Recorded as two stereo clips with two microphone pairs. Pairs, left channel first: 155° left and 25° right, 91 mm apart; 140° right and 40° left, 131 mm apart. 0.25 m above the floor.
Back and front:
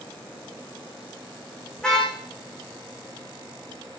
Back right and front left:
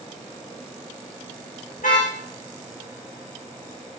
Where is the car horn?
120° right, 6.5 m.